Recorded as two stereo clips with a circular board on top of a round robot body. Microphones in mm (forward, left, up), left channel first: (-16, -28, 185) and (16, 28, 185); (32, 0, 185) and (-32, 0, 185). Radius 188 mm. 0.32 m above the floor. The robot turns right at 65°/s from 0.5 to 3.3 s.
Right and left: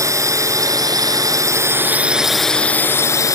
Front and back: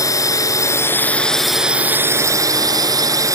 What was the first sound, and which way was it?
A drone, 30° left.